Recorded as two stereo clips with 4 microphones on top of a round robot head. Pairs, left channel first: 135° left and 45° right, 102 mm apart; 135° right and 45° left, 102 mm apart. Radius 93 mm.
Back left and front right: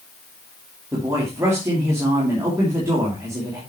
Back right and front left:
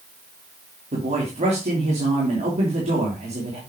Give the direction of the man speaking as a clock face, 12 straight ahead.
11 o'clock.